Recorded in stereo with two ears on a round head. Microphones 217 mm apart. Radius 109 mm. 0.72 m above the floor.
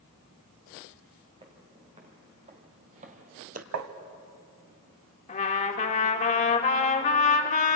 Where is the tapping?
75° right (ahead or behind), 1.3 m.